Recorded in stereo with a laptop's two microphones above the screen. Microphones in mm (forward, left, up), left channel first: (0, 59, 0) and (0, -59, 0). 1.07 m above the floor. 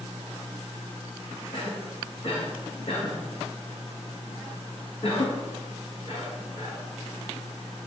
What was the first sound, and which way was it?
A cough, 50° left (ahead or behind).